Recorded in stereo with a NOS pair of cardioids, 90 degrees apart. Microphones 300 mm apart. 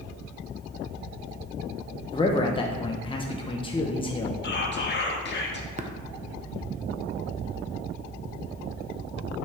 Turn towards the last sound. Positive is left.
turn(degrees=-25)